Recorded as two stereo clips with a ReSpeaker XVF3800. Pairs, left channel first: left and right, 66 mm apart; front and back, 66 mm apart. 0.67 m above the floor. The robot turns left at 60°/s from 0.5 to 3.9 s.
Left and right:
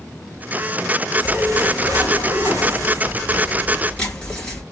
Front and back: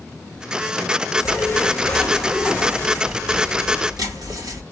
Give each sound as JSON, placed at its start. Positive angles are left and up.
{"t": 1.2, "sound": "a zipper", "azimuth_deg": -25, "distance_m": 3.5}